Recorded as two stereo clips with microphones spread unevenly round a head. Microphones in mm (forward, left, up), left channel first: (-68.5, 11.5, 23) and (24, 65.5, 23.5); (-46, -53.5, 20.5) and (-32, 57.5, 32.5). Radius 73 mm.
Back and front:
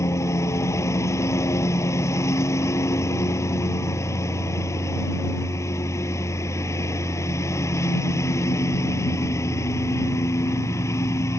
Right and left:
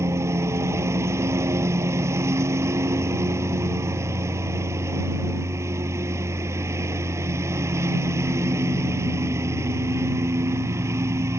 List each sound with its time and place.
0.0 s a lawn mower: 145° left